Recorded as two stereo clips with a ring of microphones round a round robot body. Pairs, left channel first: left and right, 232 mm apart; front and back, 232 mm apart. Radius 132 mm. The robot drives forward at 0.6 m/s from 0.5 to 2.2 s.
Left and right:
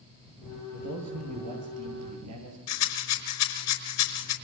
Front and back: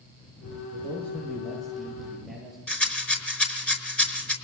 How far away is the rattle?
About 5 m.